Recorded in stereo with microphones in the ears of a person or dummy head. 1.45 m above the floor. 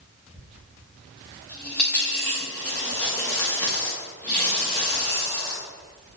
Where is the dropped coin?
10° left (ahead or behind), 0.7 m.